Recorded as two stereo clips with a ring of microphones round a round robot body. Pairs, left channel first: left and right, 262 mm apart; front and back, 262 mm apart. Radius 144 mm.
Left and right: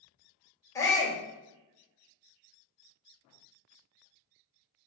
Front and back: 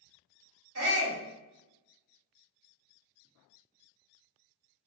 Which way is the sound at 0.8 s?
165° left.